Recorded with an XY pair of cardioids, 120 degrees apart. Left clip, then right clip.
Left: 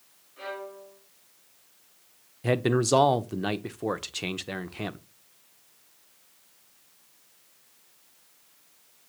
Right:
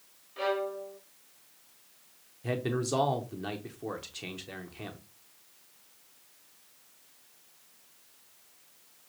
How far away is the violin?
About 0.8 m.